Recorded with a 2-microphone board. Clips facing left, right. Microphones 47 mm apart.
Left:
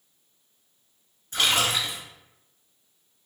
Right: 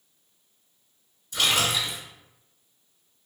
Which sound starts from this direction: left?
A splash, at 1.3 s.